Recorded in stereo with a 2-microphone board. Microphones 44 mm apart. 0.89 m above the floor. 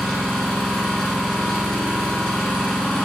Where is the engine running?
10° left (ahead or behind), 1.2 m.